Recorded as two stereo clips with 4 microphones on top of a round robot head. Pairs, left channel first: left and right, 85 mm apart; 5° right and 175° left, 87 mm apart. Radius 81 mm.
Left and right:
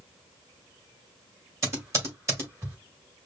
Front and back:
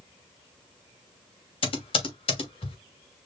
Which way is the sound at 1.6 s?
30° right.